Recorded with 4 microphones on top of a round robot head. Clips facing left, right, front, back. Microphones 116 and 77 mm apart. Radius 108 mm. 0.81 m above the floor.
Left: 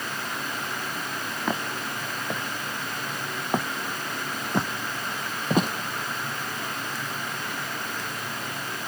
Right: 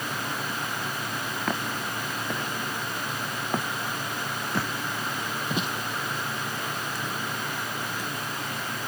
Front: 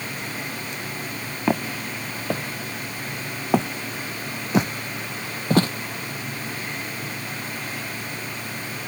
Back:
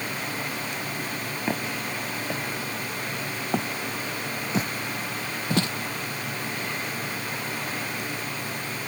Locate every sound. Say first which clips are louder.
1.5 s footsteps: left 2 dB, front 6 dB; 5° left; by 5.7 s 35° left